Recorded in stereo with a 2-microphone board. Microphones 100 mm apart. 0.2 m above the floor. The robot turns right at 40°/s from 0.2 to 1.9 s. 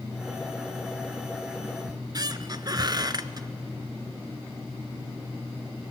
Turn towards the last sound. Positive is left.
turn(degrees=-40)  # may be behind; listen again after turning